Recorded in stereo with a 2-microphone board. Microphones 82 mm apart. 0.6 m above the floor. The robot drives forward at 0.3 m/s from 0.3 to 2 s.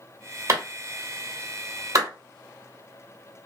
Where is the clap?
40° right (ahead or behind), 1.3 m; by 2.1 s 45° right (ahead or behind), 1.1 m.